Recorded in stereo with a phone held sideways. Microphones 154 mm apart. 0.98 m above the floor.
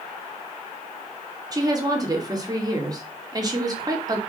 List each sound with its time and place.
1.5 s a woman speaking: 25° right (ahead or behind), 2.5 m